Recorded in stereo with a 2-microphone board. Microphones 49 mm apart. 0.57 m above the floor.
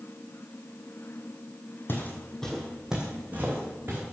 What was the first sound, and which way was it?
Footsteps, 45° left (ahead or behind).